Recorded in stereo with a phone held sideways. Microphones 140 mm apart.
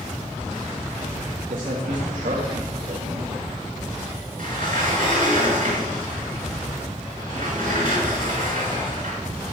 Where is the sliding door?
75° right (ahead or behind), 5 m.